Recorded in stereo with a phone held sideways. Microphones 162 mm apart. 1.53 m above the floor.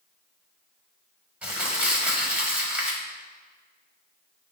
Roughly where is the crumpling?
Centre.